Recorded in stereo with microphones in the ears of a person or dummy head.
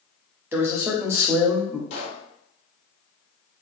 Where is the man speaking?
15° right (ahead or behind), 0.5 m.